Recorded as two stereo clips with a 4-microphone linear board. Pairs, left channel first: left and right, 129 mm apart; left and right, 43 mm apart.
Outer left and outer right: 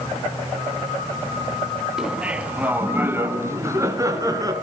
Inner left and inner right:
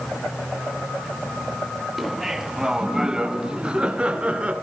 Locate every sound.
2.0 s laughter: 5° right (ahead or behind), 2 m; by 4.5 s 30° right (ahead or behind), 3 m